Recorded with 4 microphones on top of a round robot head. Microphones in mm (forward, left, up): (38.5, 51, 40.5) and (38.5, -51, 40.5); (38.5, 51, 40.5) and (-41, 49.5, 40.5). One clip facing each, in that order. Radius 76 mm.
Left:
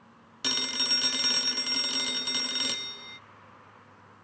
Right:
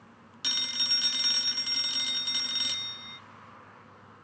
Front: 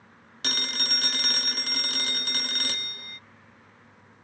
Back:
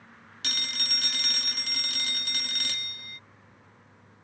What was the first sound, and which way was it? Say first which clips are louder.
A phone ringing: left 7 dB, front 5 dB; 50° left.